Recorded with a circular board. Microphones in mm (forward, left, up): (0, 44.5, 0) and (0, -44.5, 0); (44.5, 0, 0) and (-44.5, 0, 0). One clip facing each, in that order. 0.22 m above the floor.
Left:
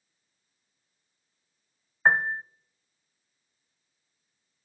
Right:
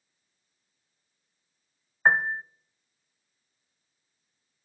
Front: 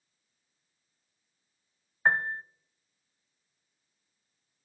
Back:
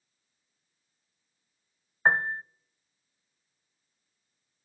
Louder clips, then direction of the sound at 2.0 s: Even, back 2 dB; 175° right.